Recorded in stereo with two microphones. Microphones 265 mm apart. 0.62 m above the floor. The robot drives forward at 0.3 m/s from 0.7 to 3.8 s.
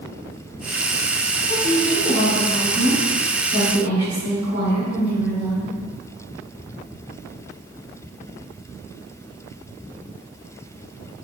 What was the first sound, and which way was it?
A woman speaking, 65° left (ahead or behind).